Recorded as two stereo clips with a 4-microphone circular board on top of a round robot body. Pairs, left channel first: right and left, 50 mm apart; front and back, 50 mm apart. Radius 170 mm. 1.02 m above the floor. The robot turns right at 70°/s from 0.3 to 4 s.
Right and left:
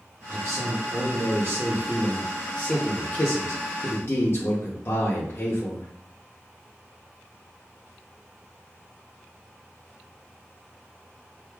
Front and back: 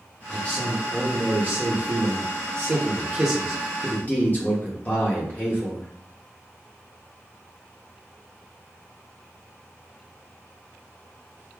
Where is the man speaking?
45° left, 0.9 m; by 5.9 s 55° right, 0.9 m.